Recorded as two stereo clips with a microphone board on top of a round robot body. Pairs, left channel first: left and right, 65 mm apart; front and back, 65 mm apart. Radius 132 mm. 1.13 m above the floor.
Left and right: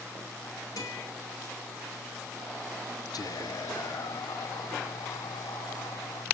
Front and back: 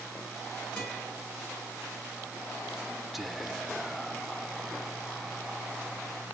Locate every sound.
0.8 s a guitar: 70° left, 6.5 m
3.1 s whispering: 95° left, 0.5 m